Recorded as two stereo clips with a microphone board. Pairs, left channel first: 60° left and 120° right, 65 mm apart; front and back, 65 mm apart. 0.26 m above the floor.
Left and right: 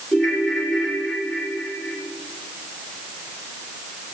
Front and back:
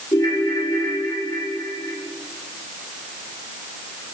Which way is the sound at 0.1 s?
30° right.